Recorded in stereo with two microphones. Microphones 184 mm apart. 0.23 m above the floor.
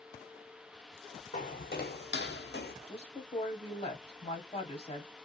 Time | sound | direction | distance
1.3 | footsteps | 45° left (ahead or behind) | 0.7 m
2.9 | a woman speaking | 35° left (ahead or behind) | 1.2 m